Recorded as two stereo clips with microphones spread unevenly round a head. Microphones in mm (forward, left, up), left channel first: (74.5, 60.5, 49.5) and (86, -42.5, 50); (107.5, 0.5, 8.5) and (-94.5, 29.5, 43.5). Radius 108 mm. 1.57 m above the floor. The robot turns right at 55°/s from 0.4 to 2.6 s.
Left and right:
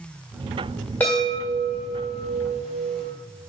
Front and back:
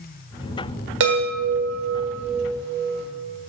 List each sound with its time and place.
1.0 s a chime: 175° left, 1.4 m; by 3.0 s 95° right, 1.4 m